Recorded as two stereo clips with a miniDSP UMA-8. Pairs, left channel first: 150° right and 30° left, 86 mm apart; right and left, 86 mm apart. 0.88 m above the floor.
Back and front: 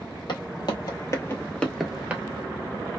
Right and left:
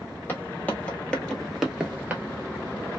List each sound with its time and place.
0.3 s footsteps: 155° right, 1.6 m; by 2.2 s 50° left, 0.9 m